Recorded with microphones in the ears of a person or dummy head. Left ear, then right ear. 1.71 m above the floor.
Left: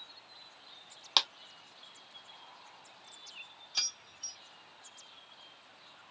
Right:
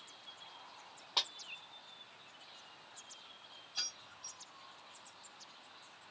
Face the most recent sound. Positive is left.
turn(degrees=55)  # may be behind; listen again after turning